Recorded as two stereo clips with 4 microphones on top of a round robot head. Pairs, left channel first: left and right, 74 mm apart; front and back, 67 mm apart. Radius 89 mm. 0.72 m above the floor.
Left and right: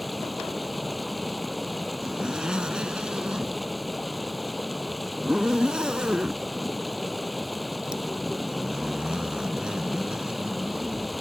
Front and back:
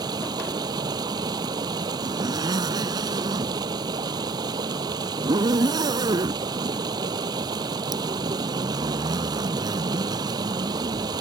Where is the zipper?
170° right.